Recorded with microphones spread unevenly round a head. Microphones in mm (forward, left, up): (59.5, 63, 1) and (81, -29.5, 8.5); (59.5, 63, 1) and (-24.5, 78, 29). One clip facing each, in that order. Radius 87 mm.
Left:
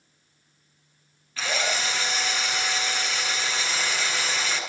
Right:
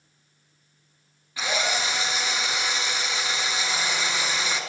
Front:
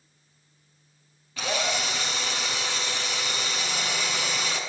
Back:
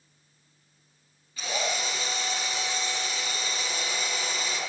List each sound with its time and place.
1.4 s a drill: straight ahead, 7.5 m